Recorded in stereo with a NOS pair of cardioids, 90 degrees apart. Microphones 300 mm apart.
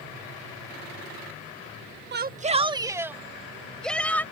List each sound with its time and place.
2.1 s a shout: 35° right; by 4.2 s 5° left